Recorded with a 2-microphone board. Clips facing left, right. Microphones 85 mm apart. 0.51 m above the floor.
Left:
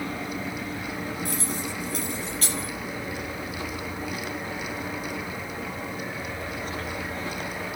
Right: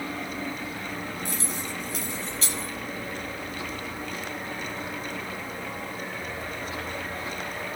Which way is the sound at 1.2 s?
50° left (ahead or behind).